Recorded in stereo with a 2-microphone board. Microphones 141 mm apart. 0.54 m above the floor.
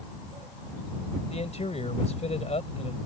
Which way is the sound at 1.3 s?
50° left (ahead or behind).